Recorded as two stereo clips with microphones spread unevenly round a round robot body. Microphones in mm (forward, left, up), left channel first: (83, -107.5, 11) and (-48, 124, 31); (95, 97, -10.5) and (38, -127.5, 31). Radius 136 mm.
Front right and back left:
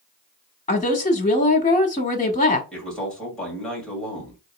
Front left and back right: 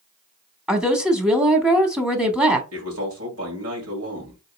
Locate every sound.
0.7 s a woman speaking: 10° right, 0.9 m
2.7 s a man speaking: 145° right, 2 m